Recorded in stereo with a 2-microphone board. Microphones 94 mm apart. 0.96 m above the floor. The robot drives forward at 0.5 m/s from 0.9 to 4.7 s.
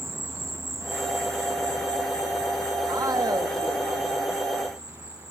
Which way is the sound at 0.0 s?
30° right (ahead or behind).